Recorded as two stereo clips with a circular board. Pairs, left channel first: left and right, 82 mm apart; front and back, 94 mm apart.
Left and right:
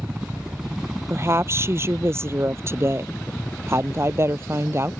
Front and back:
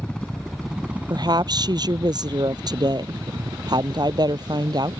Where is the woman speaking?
145° right.